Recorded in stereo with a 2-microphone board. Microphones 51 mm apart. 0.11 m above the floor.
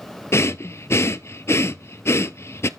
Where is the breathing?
55° left (ahead or behind), 0.6 m.